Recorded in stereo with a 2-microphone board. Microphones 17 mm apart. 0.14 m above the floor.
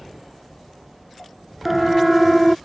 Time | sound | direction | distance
1.6 | a siren | 10° right (ahead or behind) | ?